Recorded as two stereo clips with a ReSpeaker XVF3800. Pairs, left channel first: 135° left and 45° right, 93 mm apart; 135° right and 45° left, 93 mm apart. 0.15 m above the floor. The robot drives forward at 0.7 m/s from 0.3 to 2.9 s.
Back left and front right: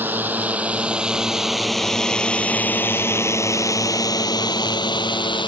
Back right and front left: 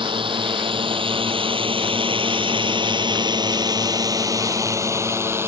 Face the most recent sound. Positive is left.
turn(degrees=110)